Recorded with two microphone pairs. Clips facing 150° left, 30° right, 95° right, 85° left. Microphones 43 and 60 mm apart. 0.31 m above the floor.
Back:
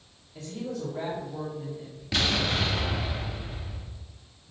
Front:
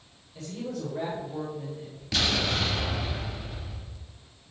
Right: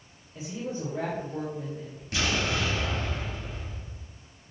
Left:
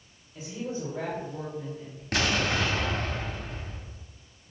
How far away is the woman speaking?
About 1.1 m.